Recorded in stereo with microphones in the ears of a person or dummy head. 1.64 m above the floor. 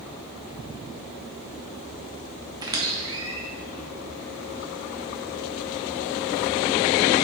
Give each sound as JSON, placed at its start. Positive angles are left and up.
{"t": 2.6, "sound": "a squeak", "side_deg": -15, "distance_m": 0.7}